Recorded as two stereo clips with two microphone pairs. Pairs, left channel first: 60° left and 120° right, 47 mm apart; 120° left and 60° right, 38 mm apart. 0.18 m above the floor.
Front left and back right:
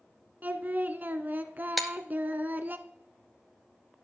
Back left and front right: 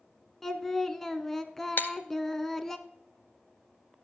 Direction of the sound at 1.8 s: 150° left.